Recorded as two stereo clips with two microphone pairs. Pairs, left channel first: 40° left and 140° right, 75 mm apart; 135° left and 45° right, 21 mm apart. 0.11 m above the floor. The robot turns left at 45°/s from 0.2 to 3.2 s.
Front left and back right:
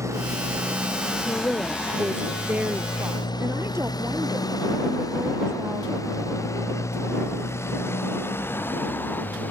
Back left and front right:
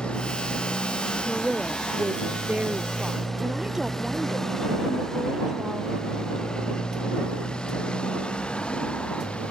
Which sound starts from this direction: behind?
A motorcycle, at 0.0 s.